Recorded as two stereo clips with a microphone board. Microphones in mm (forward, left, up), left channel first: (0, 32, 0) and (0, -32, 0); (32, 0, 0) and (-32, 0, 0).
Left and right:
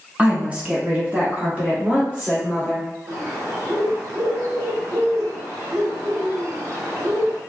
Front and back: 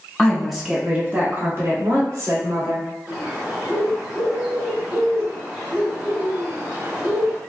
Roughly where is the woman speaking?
Ahead right.